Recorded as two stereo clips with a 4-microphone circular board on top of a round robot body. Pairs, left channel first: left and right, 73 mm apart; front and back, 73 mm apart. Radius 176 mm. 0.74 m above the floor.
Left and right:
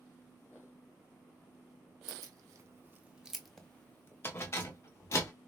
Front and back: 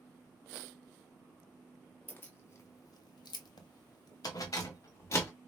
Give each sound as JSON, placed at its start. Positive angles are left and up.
{"t": 2.1, "sound": "keys jangling", "azimuth_deg": -60, "distance_m": 1.0}